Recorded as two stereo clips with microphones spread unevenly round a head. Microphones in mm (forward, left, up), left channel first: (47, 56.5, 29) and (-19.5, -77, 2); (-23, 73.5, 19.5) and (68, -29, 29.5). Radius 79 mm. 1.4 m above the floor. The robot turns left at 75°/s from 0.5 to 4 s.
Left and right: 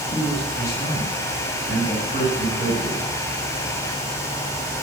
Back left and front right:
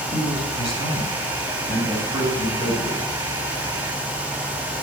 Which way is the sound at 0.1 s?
145° left.